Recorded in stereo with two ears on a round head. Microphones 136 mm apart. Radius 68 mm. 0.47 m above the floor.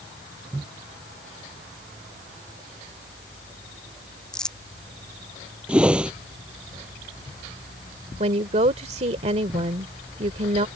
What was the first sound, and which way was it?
Crumpling, 5° left (ahead or behind).